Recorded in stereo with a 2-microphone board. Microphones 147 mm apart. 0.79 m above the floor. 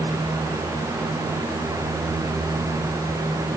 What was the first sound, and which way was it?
Only background noise.